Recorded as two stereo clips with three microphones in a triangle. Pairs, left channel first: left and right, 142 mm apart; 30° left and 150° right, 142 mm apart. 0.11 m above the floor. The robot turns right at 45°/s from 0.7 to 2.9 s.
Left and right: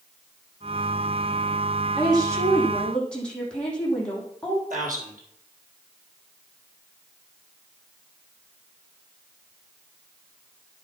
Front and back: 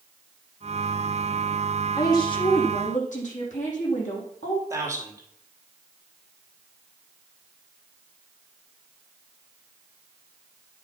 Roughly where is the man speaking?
Right.